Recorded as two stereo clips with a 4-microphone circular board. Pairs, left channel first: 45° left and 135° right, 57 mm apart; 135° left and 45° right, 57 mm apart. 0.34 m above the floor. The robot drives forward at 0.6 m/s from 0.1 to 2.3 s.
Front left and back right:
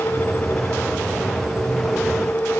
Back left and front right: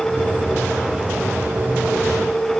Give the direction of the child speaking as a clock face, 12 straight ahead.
I don't hear a child speaking.